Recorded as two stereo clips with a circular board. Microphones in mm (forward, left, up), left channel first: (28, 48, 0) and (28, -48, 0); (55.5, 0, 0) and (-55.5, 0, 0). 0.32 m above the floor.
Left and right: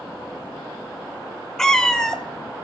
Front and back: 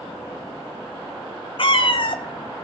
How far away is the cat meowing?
About 0.6 m.